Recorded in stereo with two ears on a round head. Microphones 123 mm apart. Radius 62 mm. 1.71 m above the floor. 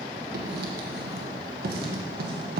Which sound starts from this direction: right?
Writing, at 0.3 s.